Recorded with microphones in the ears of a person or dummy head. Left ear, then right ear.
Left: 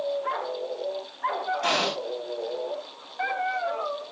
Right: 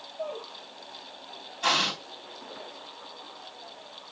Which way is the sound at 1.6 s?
5° left (ahead or behind).